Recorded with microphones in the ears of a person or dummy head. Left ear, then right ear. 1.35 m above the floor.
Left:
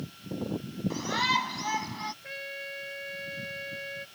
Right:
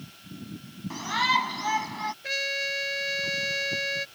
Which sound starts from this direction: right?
A trumpet, at 2.2 s.